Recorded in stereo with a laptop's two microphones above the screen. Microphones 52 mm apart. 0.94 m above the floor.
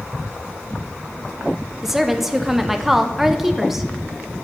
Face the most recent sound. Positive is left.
turn(degrees=-5)  # may be behind; listen again after turning